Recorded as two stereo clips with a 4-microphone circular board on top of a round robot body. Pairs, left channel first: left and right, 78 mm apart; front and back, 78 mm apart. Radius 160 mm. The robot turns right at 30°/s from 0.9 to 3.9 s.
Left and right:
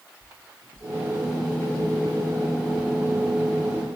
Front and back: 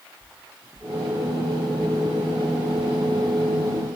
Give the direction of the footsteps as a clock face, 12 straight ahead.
8 o'clock.